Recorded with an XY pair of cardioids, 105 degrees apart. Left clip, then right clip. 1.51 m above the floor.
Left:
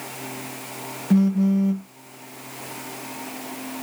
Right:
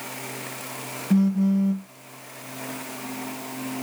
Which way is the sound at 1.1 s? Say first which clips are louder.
Left 2 dB; 15° left.